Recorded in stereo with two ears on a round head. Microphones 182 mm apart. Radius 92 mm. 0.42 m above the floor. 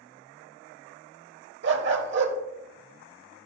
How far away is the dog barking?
About 0.8 m.